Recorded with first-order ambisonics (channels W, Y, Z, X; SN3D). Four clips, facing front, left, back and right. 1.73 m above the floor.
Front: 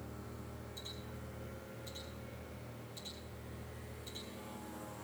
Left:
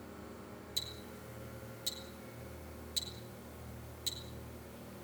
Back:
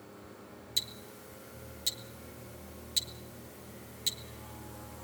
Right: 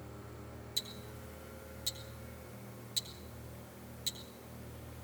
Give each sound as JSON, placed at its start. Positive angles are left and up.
{"t": 0.8, "sound": "ticking", "azimuth_deg": -175, "distance_m": 2.0}